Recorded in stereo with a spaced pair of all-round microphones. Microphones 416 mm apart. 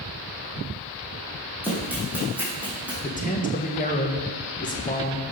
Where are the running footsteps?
5° right (ahead or behind), 3 m.